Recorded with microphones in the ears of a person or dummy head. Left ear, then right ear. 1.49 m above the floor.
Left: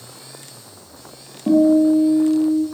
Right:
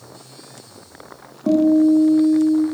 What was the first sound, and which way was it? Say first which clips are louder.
A guitar: left 1 dB; 20° right (ahead or behind).